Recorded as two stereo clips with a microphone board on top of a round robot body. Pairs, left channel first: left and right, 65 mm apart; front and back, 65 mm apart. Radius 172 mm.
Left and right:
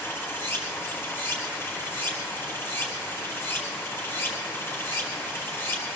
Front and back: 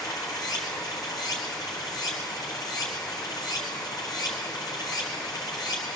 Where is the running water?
35° left, 3.5 m.